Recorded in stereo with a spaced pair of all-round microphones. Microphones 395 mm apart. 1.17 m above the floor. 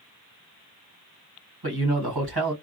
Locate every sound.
1.6 s a man speaking: 65° right (ahead or behind), 1.6 m